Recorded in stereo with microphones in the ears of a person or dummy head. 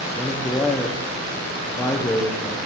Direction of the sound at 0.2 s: 15° left (ahead or behind).